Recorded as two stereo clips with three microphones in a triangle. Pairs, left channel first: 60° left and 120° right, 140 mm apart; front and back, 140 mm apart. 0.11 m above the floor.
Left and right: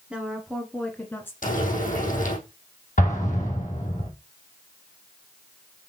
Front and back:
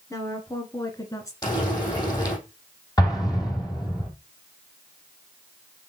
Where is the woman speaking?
45° right, 1.7 m; by 1.3 s 15° left, 1.6 m.